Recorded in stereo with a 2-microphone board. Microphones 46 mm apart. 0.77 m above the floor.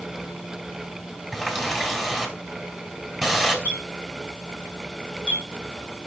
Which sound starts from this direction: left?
A clink, at 3.6 s.